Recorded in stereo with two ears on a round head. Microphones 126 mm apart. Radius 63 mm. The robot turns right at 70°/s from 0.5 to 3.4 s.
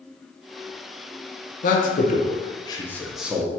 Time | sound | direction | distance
1.6 | a man speaking | 60° left (ahead or behind) | 0.7 m